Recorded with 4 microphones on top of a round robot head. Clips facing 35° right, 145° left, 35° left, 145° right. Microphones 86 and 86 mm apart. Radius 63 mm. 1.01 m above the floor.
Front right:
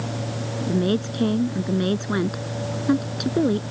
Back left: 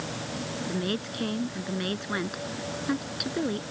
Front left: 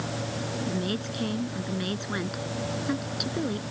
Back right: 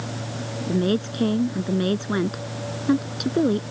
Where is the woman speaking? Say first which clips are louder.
Front right 10 dB, back right 13 dB; 95° right.